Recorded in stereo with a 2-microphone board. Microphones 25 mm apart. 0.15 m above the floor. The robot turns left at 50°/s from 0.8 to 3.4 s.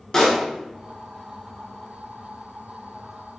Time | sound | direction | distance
0.1 | a pop | 20° left (ahead or behind) | 0.7 m